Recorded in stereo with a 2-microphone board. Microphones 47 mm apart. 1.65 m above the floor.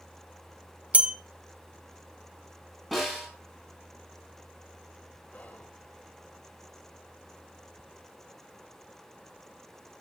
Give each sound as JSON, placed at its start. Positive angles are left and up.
{"t": 0.9, "sound": "a bell", "side_deg": -35, "distance_m": 0.6}
{"t": 2.9, "sound": "a snare drum", "side_deg": 0, "distance_m": 8.5}
{"t": 5.3, "sound": "whispering", "side_deg": 35, "distance_m": 0.7}